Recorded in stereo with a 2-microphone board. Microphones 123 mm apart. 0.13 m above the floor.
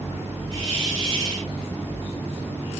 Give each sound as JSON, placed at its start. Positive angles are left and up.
{"t": 0.5, "sound": "a hiss", "side_deg": -45, "distance_m": 1.2}